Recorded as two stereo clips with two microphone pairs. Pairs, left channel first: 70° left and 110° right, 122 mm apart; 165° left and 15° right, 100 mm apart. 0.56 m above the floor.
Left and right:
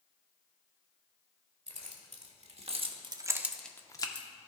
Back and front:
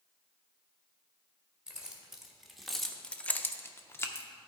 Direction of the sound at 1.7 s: 95° right.